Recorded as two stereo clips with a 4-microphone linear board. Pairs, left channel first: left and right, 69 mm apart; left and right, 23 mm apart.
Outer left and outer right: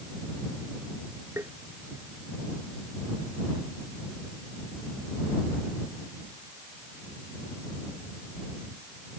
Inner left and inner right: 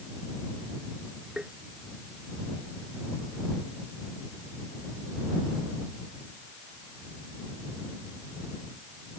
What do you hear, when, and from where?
1.4 s tapping: 40° right (ahead or behind)